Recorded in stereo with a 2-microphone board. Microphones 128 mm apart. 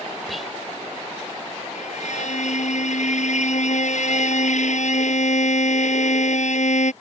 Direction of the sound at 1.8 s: 70° left (ahead or behind).